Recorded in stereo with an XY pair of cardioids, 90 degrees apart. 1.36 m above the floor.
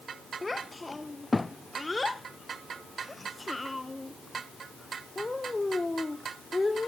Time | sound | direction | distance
0.4 | a child speaking | 20° left | 0.7 m